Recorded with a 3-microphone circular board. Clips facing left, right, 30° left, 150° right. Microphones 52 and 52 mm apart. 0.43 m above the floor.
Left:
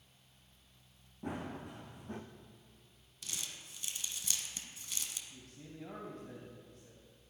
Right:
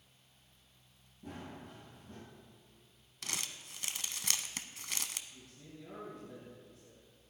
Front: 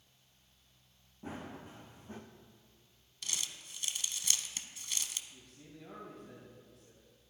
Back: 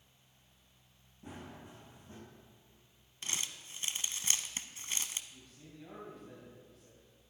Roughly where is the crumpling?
Right.